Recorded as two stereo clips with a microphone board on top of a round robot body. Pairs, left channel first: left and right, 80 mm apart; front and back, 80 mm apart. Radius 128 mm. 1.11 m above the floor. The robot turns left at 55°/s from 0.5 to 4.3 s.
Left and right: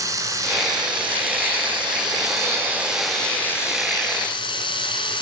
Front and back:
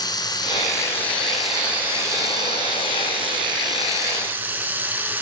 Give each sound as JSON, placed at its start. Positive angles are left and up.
{"t": 0.0, "sound": "running water", "azimuth_deg": -40, "distance_m": 4.0}